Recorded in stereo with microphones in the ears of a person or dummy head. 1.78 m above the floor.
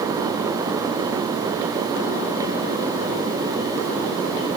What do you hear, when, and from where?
Only background noise.